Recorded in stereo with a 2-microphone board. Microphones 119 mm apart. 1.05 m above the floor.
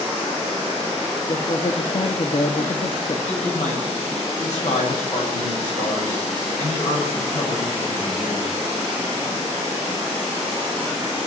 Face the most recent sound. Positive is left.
turn(degrees=80)